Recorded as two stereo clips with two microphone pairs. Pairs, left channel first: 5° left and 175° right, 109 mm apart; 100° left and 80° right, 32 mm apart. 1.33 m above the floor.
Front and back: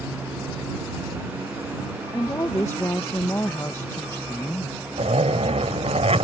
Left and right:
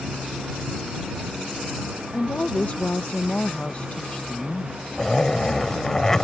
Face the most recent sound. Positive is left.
turn(degrees=175)